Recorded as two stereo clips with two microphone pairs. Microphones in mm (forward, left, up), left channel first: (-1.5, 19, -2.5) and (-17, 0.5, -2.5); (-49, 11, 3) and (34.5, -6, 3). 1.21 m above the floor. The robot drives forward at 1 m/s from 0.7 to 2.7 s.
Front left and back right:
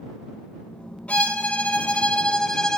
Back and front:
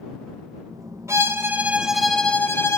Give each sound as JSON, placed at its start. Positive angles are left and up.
{"t": 1.1, "sound": "a violin", "azimuth_deg": 40, "distance_m": 1.6}